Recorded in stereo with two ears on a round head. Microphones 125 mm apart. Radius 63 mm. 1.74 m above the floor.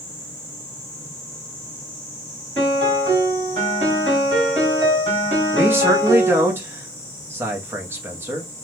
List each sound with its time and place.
2.6 s a piano: 40° right (ahead or behind), 1.8 m
5.5 s a man speaking: 15° right (ahead or behind), 0.7 m